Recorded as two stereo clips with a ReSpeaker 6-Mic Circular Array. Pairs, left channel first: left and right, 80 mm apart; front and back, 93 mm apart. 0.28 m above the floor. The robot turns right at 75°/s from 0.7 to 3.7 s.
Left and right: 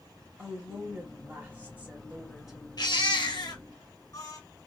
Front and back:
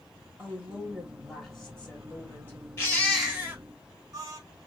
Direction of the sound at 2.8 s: 60° left.